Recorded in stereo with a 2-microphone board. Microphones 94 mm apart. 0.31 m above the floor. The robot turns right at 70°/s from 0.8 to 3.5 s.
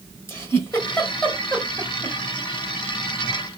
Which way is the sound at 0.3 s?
30° left (ahead or behind).